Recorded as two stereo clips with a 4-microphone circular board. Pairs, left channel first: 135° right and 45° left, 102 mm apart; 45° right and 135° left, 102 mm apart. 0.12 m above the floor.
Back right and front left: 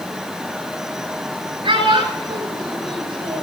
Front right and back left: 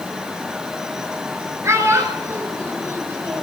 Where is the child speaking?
70° left, 9.5 m; by 3.4 s 65° left, 8.5 m.